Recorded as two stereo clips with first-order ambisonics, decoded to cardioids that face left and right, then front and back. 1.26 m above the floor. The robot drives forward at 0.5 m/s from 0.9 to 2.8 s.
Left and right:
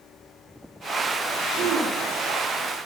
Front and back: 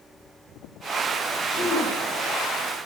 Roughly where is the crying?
I don't hear crying.